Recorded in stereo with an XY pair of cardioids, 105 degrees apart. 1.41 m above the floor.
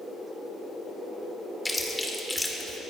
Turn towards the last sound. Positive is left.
turn(degrees=20)